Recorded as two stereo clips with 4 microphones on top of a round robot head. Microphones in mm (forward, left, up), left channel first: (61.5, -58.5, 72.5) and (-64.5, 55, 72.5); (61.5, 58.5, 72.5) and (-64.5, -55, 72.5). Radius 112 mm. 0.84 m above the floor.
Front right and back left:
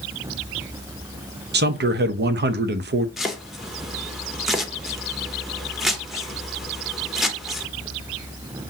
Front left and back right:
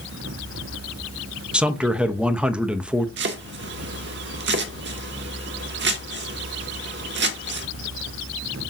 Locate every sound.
1.5 s a man speaking: 140° left, 0.7 m
3.2 s chopping: 135° right, 0.9 m